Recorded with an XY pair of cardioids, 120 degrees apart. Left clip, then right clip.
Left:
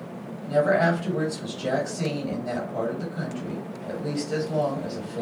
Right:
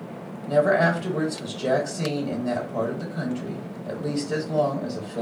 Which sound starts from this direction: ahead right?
A woman speaking, at 0.5 s.